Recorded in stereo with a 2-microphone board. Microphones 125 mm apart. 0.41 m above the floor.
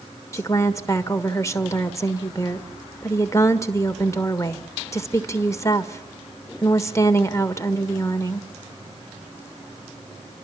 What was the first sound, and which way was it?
A woman speaking, 25° left (ahead or behind).